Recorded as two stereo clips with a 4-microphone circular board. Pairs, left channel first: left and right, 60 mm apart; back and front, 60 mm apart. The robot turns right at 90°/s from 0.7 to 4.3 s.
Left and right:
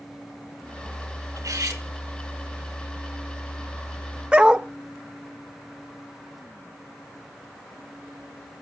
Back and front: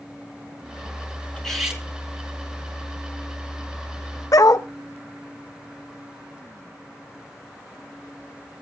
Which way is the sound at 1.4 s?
110° right.